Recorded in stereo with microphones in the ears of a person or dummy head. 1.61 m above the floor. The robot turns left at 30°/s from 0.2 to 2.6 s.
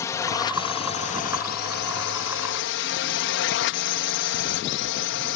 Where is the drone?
160° left; by 5.4 s 90° left.